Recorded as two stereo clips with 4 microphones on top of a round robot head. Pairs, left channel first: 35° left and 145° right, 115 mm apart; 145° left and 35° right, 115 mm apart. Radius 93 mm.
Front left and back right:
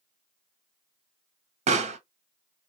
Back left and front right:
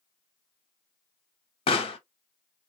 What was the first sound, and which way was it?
A pop, 170° right.